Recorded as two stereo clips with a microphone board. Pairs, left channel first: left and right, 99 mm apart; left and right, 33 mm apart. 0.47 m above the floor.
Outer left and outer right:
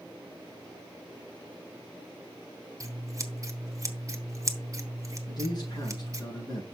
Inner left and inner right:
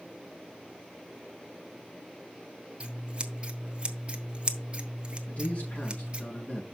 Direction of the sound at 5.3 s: 45° left (ahead or behind).